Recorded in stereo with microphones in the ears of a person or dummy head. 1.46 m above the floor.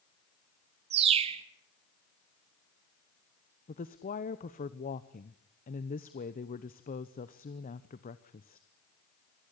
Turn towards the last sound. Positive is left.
turn(degrees=45)  # may be behind; listen again after turning